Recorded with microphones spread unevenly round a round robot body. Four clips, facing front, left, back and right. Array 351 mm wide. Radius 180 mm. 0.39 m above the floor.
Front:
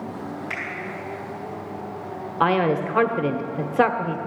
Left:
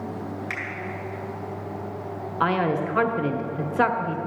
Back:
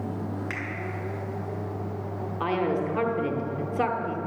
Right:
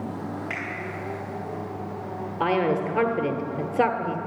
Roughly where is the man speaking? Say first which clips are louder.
Even, front 6 dB; ahead.